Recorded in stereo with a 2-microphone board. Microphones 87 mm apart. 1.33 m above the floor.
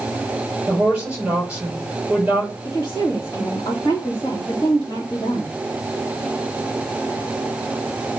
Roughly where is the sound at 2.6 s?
Left.